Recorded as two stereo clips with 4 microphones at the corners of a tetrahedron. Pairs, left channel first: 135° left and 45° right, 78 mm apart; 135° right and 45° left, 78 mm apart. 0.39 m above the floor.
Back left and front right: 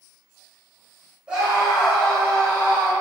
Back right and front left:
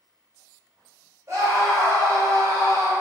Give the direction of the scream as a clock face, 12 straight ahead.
11 o'clock.